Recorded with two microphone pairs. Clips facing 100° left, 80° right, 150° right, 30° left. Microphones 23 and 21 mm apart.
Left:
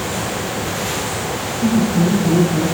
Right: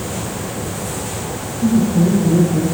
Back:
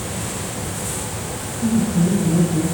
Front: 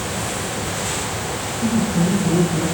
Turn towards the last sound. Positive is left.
turn(degrees=-45)